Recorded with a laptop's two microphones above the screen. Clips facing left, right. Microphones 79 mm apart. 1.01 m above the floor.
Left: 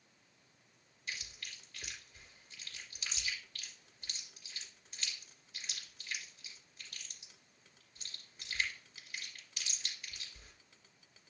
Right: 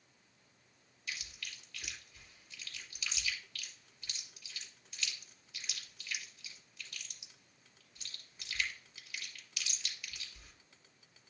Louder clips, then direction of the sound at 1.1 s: Even; 35° left (ahead or behind).